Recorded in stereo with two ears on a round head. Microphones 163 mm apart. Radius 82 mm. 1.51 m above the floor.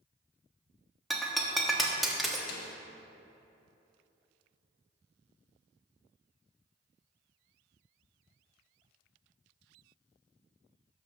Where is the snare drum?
65° left (ahead or behind), 1.1 m.